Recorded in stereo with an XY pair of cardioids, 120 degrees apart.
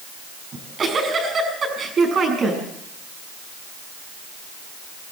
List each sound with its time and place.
0.5 s a giggle: 40° right, 6 m